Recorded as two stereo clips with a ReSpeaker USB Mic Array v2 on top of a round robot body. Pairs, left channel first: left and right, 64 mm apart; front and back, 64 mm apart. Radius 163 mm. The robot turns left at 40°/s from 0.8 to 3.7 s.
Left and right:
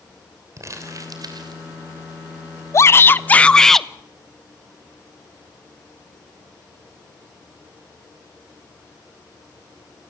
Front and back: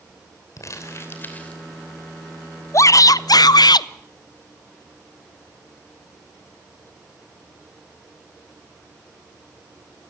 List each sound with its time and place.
0.6 s crumpling: 45° right, 2.5 m; by 1.6 s 75° right, 2.5 m
2.7 s a shout: 45° left, 0.7 m; by 3.9 s 5° left, 0.7 m